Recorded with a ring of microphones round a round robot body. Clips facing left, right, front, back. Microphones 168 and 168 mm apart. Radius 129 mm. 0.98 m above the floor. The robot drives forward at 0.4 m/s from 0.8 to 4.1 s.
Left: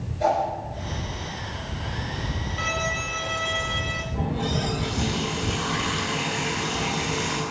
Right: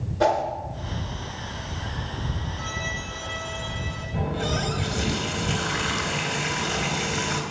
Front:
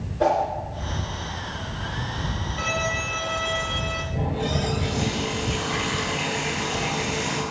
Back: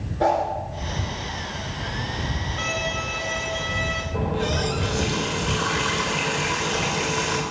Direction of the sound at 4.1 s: 135° right.